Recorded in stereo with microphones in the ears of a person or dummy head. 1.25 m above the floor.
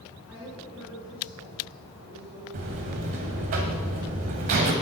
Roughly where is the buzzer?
Right.